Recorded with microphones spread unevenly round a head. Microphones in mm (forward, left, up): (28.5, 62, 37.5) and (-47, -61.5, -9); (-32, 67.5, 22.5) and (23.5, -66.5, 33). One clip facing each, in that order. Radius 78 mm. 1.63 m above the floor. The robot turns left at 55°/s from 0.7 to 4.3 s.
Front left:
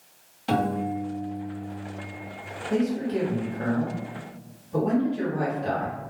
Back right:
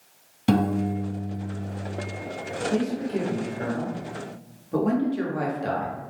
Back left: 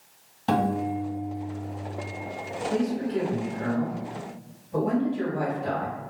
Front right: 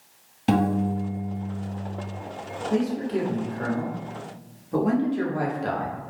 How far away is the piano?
About 1.6 m.